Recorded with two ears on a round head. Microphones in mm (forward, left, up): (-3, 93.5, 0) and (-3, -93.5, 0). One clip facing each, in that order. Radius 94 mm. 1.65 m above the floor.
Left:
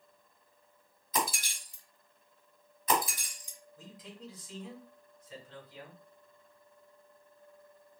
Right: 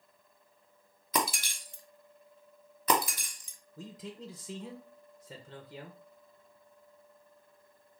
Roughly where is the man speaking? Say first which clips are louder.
Right 6 dB; right.